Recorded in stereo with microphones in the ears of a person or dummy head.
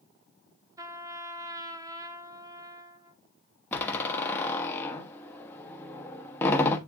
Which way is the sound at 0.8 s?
15° right (ahead or behind).